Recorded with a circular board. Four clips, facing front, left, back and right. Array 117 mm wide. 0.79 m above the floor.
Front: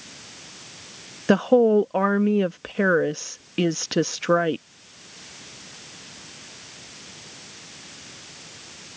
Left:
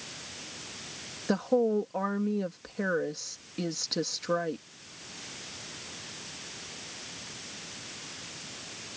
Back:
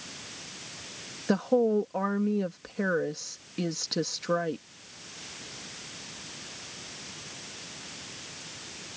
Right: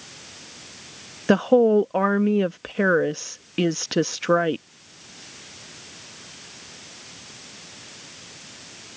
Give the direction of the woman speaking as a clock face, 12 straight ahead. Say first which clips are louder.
Right 10 dB, front 8 dB; 2 o'clock.